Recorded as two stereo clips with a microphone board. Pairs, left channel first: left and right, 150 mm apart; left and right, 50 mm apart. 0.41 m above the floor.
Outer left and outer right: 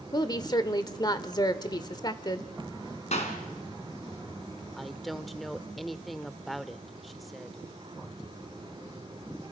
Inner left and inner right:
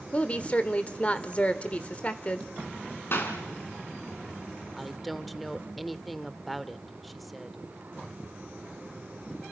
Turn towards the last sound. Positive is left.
turn(degrees=0)  # may be behind; listen again after turning